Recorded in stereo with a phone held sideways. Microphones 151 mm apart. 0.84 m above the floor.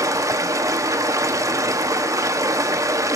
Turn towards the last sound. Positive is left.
turn(degrees=-20)  # may be behind; listen again after turning